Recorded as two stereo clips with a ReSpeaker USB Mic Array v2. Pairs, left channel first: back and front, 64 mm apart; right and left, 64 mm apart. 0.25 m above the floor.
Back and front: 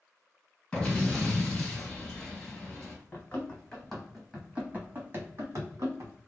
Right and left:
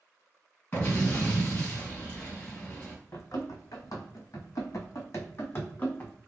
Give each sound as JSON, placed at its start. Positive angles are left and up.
{"t": 0.7, "sound": "an explosion", "azimuth_deg": -120, "distance_m": 1.8}
{"t": 3.1, "sound": "running footsteps", "azimuth_deg": -115, "distance_m": 1.0}